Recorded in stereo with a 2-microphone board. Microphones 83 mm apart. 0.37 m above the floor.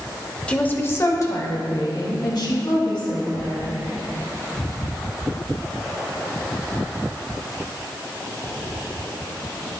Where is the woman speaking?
15° left (ahead or behind), 1.0 m; by 3.8 s 70° left (ahead or behind), 3 m.